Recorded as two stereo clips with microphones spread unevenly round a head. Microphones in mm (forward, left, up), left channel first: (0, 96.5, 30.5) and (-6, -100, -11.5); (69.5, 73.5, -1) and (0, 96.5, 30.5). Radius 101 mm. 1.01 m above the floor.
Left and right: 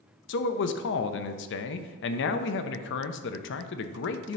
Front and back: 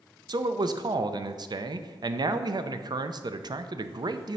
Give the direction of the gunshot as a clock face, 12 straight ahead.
I don't hear a gunshot.